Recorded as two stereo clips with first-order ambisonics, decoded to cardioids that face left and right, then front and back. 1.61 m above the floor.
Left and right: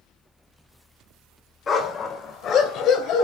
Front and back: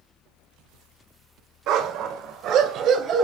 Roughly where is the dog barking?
Behind left.